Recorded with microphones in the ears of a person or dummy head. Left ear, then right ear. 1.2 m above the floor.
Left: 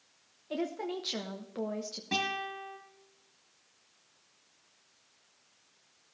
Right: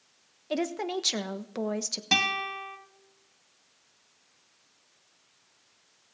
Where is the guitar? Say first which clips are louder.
Right 7 dB; 55° right (ahead or behind), 2.5 m.